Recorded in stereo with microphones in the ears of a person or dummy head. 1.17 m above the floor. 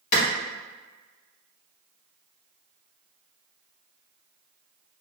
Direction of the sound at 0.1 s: 50° left (ahead or behind).